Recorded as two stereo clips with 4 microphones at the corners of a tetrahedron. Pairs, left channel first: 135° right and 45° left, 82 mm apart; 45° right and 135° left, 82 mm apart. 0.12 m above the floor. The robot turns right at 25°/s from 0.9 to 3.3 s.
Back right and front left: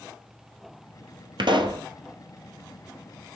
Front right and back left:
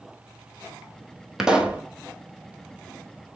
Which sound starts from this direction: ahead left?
A pop, at 1.4 s.